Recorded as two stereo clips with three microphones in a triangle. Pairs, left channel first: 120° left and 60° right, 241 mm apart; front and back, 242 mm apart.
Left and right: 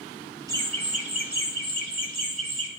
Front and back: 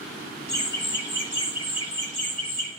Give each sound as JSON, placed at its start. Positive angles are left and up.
{"t": 0.5, "sound": "laughter", "azimuth_deg": 10, "distance_m": 1.5}